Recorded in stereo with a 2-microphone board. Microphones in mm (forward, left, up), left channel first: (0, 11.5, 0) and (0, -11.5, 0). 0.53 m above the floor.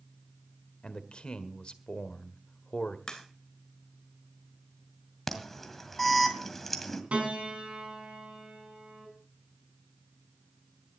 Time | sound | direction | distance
0.8 | a man speaking | 50° left (ahead or behind) | 1.5 m
3.1 | a crack | 35° left (ahead or behind) | 3 m
5.3 | an alarm | 15° left (ahead or behind) | 1.9 m
7.1 | a piano | 75° right (ahead or behind) | 4.5 m